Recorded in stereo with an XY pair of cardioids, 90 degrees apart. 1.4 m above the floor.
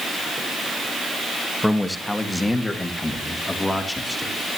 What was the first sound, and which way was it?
A man speaking, 5° left.